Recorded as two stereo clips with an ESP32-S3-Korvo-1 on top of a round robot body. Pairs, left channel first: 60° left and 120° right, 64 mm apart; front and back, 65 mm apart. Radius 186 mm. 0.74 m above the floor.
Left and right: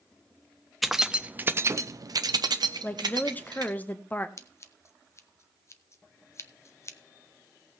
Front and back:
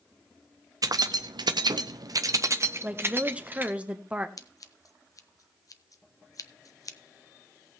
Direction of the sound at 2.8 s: 115° left.